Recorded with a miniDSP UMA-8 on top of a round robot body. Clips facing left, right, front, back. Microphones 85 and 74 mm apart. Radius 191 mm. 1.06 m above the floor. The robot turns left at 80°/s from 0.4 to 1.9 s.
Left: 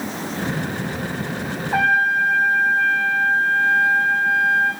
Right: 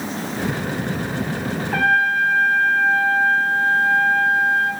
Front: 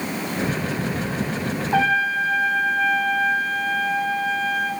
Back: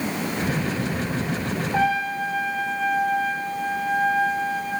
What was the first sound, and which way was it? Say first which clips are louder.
A trumpet: even, front 3 dB; 15° left.